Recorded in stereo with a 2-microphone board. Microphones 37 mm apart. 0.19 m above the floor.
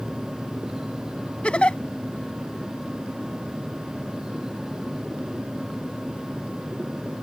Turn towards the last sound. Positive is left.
turn(degrees=35)  # may be behind; listen again after turning